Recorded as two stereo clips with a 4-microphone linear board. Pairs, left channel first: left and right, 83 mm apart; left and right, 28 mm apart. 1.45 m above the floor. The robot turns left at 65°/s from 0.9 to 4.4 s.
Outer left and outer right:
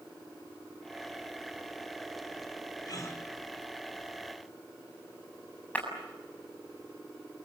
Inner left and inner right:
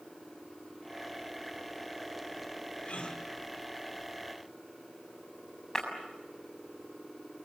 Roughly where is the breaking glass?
Centre.